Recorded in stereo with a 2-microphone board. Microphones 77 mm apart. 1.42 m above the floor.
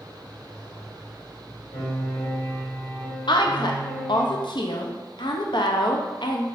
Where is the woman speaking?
80° left, 0.5 m.